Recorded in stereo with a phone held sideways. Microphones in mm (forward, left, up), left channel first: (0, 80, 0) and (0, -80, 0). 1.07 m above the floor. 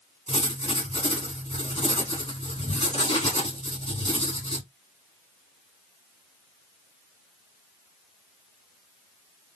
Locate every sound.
0.3 s writing: 45° left (ahead or behind), 3 m